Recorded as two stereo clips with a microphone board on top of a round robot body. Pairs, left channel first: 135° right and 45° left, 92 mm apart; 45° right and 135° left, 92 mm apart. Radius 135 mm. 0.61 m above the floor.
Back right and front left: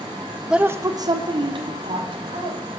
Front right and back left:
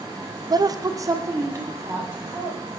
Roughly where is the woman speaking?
Behind left.